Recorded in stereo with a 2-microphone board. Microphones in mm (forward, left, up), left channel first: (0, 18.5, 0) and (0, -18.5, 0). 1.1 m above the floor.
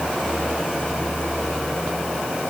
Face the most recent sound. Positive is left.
No sound to turn to.